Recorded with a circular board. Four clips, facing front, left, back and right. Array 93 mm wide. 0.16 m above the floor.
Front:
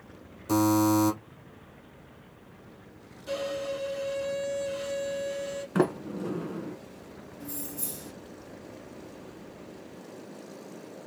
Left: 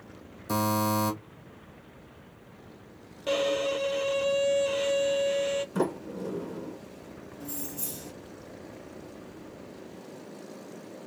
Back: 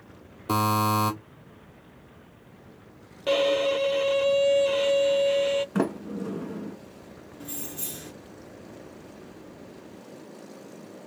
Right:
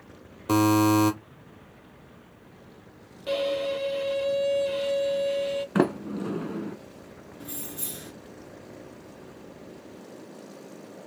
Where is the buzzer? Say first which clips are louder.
Right 7 dB, front 1 dB; 115° right, 2.0 m.